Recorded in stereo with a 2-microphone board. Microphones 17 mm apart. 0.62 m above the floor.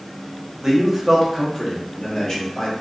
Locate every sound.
0.6 s a man speaking: 15° right (ahead or behind), 0.7 m; by 2.7 s 40° left (ahead or behind), 0.9 m